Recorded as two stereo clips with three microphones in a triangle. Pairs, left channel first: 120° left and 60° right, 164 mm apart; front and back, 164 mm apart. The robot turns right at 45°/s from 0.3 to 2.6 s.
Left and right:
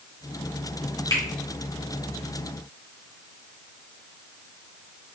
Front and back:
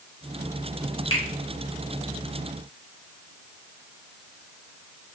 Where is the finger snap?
50° left, 2.5 m; by 1.2 s 55° left, 2.5 m.